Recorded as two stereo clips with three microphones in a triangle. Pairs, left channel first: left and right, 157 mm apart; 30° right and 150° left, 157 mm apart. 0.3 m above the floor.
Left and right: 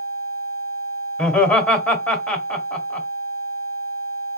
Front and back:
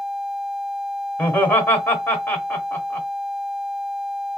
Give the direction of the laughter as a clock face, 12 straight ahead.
11 o'clock.